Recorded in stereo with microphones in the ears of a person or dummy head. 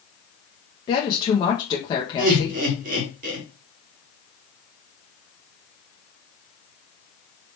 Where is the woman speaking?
25° left (ahead or behind), 0.8 m.